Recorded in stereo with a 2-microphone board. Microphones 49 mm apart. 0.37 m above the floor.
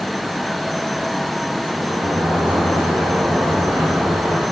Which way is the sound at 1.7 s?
65° right (ahead or behind).